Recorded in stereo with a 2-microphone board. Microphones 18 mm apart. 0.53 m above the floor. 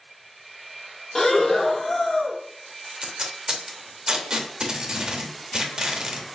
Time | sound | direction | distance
1.1 | breathing | 20° left (ahead or behind) | 0.6 m
2.9 | tape being pulled | 45° right (ahead or behind) | 0.7 m